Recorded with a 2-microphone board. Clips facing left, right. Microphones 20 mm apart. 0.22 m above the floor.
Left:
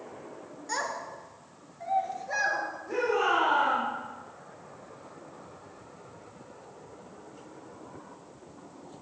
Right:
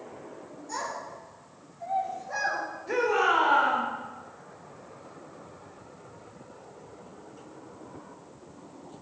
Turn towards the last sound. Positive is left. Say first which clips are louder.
# right 3 dB
turn(degrees=-60)  # may be behind; listen again after turning